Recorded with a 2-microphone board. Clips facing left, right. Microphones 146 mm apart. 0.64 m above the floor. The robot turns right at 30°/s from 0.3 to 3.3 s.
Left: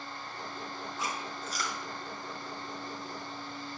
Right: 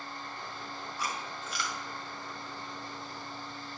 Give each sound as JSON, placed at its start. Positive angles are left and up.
{"t": 1.0, "sound": "chewing", "side_deg": 25, "distance_m": 1.9}